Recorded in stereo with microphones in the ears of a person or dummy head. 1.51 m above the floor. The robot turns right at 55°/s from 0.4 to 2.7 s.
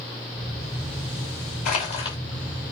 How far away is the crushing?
About 4 m.